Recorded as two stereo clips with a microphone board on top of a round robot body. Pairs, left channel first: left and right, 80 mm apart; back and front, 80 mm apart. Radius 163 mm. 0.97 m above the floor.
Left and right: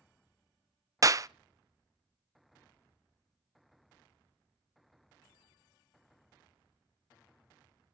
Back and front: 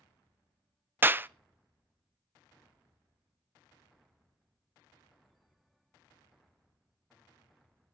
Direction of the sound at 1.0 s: 55° right.